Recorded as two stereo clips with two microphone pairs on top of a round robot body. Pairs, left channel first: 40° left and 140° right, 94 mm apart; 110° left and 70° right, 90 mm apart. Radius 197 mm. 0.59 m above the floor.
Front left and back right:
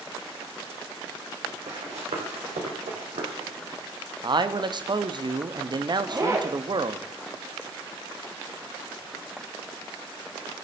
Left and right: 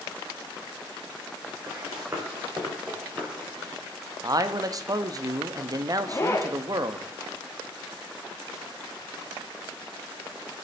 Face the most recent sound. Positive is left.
turn(degrees=170)